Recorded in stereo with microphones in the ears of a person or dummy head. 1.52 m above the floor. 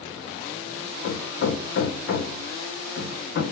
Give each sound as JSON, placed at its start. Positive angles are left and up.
{"t": 1.0, "sound": "hammering", "side_deg": 60, "distance_m": 0.7}